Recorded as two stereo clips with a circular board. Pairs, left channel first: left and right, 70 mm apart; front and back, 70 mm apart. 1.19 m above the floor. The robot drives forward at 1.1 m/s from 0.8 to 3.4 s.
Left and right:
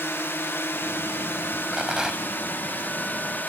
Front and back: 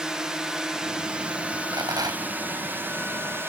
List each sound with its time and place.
0.0 s a drone: 105° left; by 3.5 s 140° left
1.7 s a rattle: 170° right